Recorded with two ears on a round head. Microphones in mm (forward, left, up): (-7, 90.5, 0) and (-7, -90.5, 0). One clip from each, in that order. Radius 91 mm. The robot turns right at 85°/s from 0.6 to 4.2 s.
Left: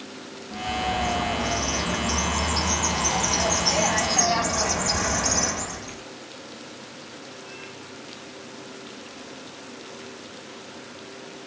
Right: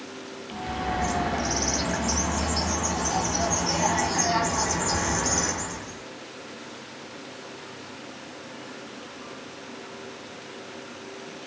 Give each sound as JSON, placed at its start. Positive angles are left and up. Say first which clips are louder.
{"t": 0.5, "sound": "a bird", "louder": "left 3 dB", "azimuth_deg": -170, "distance_m": 3.0}